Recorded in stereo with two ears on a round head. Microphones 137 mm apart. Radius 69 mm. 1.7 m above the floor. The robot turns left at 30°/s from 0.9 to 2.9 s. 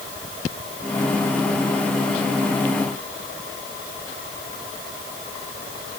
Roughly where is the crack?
No crack in this recording.